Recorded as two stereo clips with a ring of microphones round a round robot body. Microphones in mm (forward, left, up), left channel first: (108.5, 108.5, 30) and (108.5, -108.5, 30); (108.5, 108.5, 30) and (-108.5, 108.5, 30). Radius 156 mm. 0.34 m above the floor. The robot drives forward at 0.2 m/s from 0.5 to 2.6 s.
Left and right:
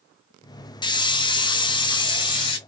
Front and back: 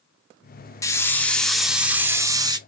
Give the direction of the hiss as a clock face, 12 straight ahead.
10 o'clock.